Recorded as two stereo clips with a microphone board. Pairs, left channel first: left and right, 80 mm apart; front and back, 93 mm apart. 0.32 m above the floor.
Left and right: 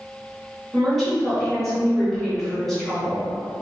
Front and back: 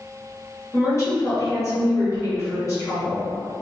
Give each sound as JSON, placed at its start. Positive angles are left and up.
{"t": 0.7, "sound": "a woman speaking", "azimuth_deg": 5, "distance_m": 1.1}